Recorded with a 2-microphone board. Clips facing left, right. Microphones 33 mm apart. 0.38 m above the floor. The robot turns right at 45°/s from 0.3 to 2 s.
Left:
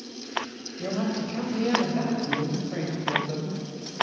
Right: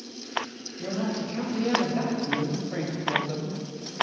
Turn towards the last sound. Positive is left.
turn(degrees=-170)